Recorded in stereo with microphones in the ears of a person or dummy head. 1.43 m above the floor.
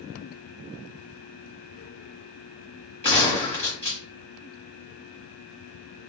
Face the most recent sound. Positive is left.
turn(degrees=35)  # may be behind; listen again after turning